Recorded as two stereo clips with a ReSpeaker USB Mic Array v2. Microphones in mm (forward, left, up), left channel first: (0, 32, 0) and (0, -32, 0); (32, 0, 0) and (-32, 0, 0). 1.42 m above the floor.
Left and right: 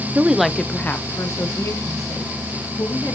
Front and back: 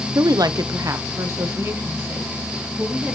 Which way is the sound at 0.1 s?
150° right.